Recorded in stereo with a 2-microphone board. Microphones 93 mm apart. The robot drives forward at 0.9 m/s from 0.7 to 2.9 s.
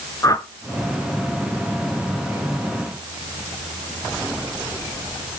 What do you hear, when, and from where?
0.2 s a whoosh: 35° left (ahead or behind), 0.8 m